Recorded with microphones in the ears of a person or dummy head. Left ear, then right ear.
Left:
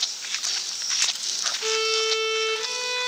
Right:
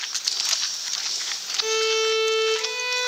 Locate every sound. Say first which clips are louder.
1.6 s a violin: right 2 dB; 5° right (ahead or behind), 2.5 m